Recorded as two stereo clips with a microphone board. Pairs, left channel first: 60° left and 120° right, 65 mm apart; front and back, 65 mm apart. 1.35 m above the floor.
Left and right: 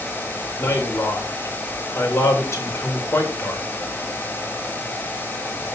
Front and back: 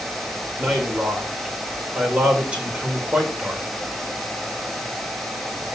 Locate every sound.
0.6 s a man speaking: 105° left, 5 m